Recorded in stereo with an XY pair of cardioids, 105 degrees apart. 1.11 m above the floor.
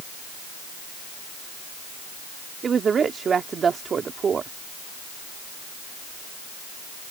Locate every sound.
2.6 s a woman speaking: 45° right